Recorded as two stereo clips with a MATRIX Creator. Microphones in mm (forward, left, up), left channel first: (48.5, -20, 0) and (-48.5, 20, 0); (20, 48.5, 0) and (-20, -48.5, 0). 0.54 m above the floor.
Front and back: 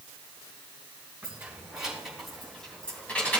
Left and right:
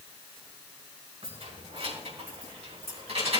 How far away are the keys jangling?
About 3.5 m.